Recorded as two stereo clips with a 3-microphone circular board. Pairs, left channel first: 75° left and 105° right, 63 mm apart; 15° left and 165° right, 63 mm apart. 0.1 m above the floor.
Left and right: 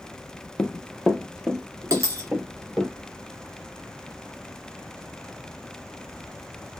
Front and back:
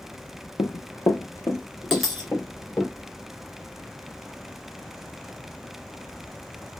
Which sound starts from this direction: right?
A dropped coin, at 1.9 s.